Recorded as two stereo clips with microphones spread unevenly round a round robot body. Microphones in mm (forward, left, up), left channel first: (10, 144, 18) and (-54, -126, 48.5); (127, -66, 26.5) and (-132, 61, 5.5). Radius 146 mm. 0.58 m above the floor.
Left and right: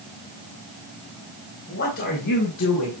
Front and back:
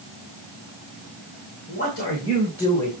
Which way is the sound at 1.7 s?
30° left.